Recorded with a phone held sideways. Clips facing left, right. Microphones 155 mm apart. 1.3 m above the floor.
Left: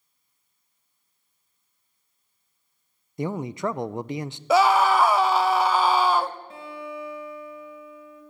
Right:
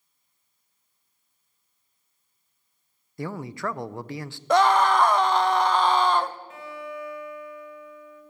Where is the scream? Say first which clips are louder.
Left 1 dB; 5° left (ahead or behind), 0.7 m.